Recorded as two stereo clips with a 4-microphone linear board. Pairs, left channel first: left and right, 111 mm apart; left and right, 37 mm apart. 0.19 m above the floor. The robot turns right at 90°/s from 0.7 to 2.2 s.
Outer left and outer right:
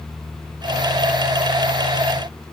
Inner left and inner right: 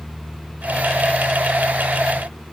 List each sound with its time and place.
Only background noise.